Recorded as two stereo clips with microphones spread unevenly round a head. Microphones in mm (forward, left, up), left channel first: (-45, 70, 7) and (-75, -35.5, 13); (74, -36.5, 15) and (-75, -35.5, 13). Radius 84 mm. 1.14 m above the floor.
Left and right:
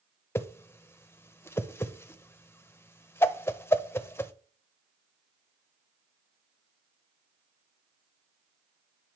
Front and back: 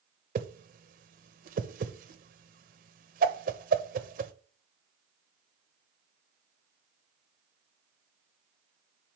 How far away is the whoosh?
About 0.8 m.